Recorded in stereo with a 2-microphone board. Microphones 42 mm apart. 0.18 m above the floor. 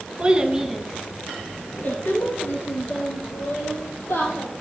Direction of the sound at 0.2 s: 30° right (ahead or behind).